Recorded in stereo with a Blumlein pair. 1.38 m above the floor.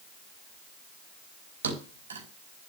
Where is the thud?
70° right, 4.5 m.